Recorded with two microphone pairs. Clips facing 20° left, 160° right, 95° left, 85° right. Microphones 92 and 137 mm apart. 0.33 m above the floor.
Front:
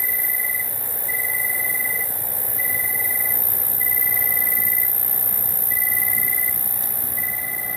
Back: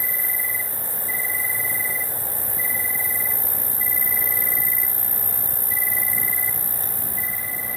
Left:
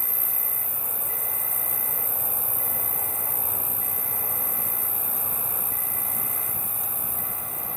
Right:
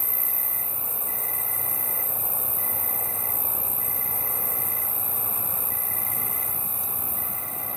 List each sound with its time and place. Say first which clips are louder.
0.0 s an insect: front 1 dB, even; 160° left, 1.1 m